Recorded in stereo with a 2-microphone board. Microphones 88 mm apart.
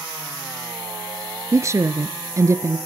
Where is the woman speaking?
35° right (ahead or behind), 1.5 m.